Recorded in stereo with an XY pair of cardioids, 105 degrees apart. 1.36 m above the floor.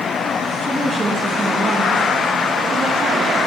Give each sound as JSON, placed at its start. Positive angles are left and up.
{"t": 0.6, "sound": "a woman speaking", "azimuth_deg": 10, "distance_m": 1.6}